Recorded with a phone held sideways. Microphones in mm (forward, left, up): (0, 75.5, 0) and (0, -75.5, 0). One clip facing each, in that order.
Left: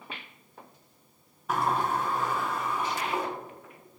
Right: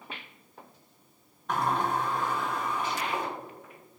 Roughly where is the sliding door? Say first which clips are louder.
Left 1 dB; centre.